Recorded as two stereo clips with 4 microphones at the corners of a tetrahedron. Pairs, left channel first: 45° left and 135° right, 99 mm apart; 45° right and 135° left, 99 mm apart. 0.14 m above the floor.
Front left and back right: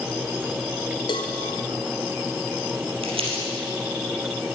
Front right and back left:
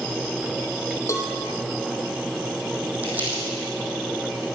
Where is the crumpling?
155° right, 3.5 m.